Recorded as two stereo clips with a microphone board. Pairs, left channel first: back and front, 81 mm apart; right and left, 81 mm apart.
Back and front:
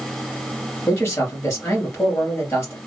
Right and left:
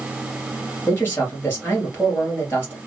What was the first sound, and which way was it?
A man speaking, 140° right.